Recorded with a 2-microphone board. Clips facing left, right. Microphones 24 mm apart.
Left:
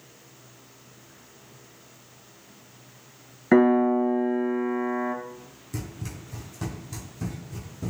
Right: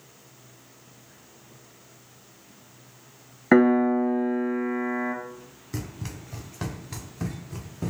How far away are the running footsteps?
About 2 m.